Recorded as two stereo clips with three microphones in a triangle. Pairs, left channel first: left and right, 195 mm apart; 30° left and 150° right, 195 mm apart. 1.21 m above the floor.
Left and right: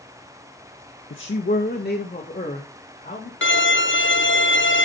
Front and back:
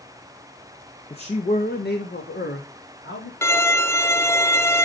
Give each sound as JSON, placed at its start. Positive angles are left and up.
{"t": 1.1, "sound": "a man speaking", "azimuth_deg": 90, "distance_m": 0.9}
{"t": 3.4, "sound": "a violin", "azimuth_deg": 105, "distance_m": 0.6}